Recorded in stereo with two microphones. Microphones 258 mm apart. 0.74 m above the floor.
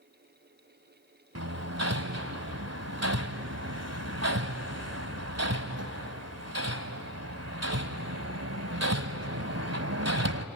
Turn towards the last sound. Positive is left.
turn(degrees=-70)  # may be behind; listen again after turning